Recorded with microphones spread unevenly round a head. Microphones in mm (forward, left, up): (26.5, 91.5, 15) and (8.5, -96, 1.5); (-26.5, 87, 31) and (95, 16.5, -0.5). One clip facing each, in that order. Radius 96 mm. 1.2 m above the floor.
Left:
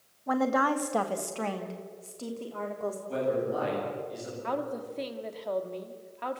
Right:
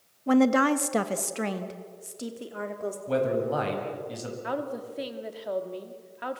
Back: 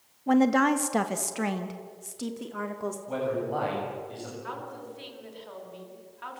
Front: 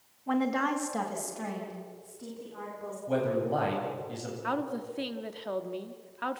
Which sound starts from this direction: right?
A man speaking, at 3.1 s.